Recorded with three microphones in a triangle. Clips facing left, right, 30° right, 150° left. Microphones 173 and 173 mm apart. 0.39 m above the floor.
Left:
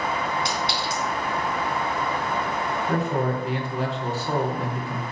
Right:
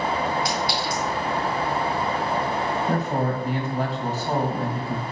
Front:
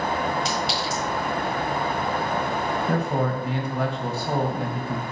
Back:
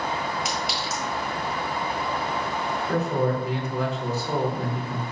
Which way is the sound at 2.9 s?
45° right.